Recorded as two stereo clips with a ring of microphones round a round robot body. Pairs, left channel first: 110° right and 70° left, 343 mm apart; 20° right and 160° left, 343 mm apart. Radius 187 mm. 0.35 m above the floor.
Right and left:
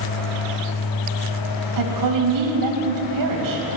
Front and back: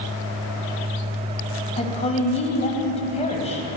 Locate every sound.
1.8 s a woman speaking: 50° left, 2.5 m